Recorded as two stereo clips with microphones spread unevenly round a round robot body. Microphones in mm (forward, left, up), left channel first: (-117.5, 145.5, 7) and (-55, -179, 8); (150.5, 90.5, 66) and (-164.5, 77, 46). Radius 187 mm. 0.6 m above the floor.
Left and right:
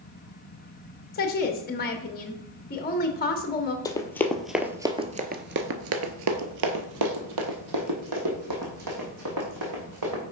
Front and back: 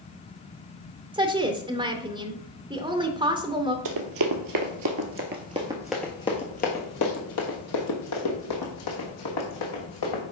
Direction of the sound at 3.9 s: Straight behind.